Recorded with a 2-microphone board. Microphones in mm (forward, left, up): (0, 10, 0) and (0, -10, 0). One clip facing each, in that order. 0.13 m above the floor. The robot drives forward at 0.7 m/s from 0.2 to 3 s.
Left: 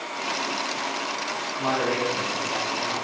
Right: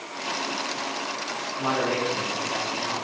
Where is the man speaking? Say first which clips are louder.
Even; 50° right (ahead or behind), 3 m; by 2.9 s 40° right (ahead or behind), 3.5 m.